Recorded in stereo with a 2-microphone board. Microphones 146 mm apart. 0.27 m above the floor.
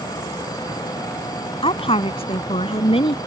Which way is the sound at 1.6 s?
40° left (ahead or behind).